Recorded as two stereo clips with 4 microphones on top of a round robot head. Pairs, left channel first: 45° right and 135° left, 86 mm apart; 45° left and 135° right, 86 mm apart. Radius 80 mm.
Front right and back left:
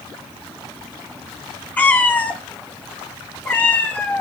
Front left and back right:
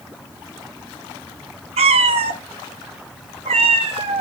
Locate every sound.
1.8 s a cat meowing: 115° right, 0.9 m